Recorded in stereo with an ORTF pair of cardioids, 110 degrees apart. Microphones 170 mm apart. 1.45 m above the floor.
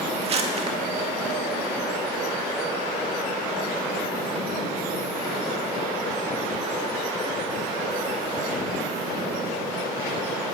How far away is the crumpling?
About 2.5 m.